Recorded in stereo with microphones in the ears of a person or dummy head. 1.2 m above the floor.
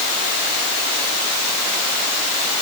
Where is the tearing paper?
No tearing paper in this recording.